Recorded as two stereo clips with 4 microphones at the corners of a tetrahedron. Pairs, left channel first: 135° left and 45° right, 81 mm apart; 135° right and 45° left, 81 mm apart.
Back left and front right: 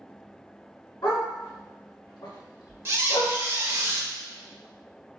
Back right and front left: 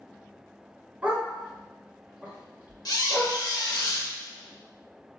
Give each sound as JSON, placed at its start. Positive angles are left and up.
{"t": 1.0, "sound": "a dog barking", "azimuth_deg": 115, "distance_m": 1.0}
{"t": 2.9, "sound": "a squeak", "azimuth_deg": -100, "distance_m": 0.5}